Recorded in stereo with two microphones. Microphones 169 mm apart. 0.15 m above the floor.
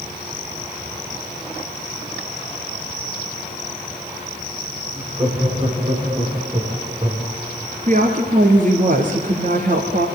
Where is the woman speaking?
50° right (ahead or behind), 2.5 m.